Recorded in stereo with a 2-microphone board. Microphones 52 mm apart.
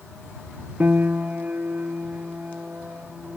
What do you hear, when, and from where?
0.8 s a piano: 35° right (ahead or behind)